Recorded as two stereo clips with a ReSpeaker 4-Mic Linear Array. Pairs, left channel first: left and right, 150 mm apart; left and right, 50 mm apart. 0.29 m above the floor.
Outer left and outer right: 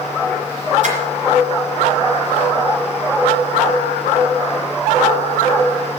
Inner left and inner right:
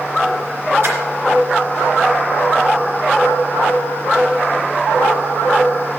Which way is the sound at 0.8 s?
55° right (ahead or behind).